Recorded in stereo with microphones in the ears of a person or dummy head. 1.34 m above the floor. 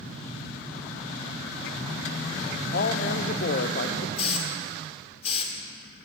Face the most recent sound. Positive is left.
turn(degrees=35)  # may be behind; listen again after turning